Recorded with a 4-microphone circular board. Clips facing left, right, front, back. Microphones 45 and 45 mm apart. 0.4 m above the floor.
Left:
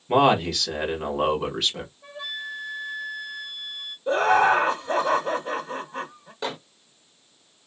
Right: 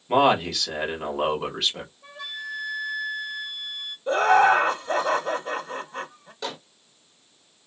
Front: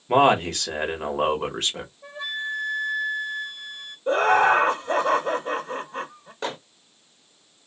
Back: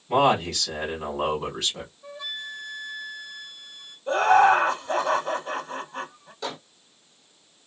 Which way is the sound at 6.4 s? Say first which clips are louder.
Left 3 dB, front 3 dB; 25° left.